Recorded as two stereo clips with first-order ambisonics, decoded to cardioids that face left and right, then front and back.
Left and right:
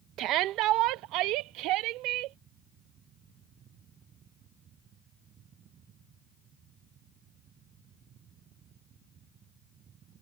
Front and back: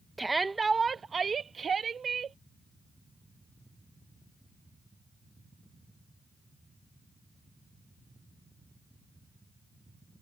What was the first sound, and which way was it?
A shout, 100° right.